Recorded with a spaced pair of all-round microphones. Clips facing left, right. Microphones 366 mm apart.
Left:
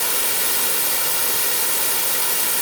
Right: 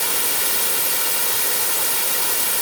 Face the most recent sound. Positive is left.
No sound to turn to.